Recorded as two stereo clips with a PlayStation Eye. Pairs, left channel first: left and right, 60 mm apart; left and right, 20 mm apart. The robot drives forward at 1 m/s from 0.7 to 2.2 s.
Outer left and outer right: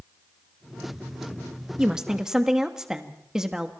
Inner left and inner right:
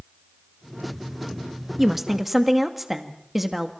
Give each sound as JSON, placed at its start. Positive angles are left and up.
{"t": 1.8, "sound": "a woman speaking", "side_deg": -10, "distance_m": 1.5}